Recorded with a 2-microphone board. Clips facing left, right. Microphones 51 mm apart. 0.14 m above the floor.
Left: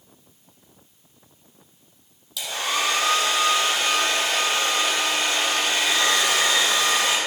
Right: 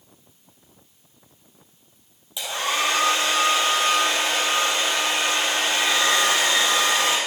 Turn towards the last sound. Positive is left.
turn(degrees=-25)  # may be behind; listen again after turning